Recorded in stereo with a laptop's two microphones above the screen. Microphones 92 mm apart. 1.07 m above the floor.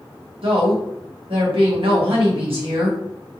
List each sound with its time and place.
0.4 s a woman speaking: 75° right (ahead or behind), 1.1 m